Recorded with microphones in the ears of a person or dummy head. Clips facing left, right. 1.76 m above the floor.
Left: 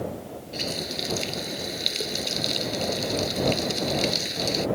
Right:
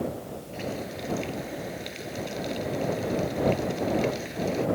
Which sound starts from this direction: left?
A running tap, at 0.5 s.